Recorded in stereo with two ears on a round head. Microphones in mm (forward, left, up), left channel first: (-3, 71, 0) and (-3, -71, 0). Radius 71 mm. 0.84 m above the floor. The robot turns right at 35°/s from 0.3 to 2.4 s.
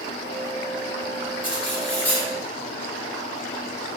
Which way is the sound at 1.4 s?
10° right.